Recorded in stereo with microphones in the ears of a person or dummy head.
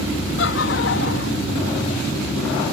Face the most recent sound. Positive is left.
turn(degrees=75)  # may be behind; listen again after turning